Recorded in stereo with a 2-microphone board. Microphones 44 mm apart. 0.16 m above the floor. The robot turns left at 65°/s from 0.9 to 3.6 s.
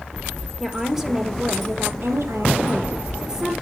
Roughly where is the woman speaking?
Ahead.